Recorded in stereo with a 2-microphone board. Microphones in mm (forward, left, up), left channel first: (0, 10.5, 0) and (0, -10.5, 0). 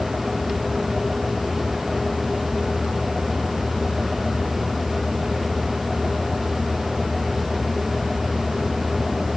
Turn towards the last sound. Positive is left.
No sound to turn to.